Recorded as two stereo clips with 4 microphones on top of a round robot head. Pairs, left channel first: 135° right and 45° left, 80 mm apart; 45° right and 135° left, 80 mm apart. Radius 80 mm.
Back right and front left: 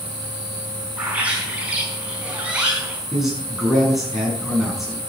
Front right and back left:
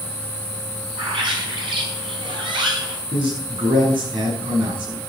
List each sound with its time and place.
1.0 s a bird: 120° left, 4.5 m
3.1 s a man speaking: 130° left, 6 m